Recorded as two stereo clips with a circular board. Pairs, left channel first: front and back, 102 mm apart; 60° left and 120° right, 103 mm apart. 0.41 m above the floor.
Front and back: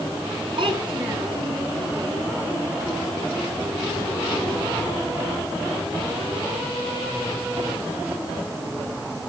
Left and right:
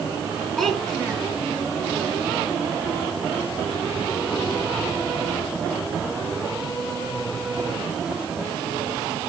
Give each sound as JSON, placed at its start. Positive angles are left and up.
{"t": 0.6, "sound": "a child speaking", "azimuth_deg": 150, "distance_m": 3.5}